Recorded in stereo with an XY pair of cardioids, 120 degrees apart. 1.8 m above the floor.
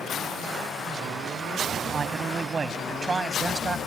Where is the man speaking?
35° right; by 3.8 s 25° right.